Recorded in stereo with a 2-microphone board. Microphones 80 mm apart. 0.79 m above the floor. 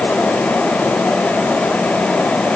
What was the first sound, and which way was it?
Only background noise.